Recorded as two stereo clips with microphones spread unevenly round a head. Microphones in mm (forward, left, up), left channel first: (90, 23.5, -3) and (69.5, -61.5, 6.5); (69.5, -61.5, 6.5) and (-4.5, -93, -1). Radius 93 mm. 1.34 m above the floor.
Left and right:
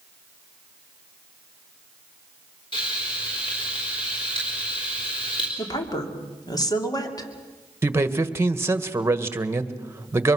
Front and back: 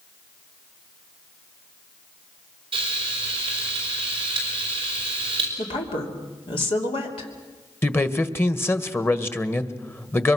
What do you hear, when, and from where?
2.7 s frying: 140° left, 3.5 m
5.6 s a woman speaking: 35° left, 3 m
7.8 s a man speaking: 40° right, 1.6 m